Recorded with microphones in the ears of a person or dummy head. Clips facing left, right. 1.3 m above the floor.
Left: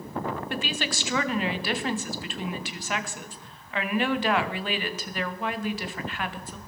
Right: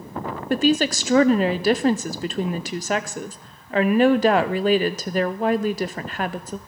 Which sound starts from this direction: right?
A woman speaking, at 0.5 s.